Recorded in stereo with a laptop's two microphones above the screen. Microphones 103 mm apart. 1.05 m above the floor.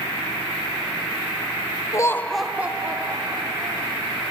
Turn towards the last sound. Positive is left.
turn(degrees=-35)  # may be behind; listen again after turning